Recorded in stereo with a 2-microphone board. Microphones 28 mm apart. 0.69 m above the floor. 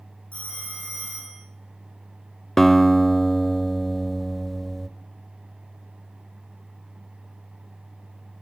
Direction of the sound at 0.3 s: 60° left (ahead or behind).